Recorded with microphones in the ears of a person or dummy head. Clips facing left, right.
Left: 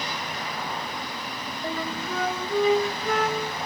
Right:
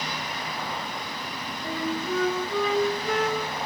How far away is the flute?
About 2.5 m.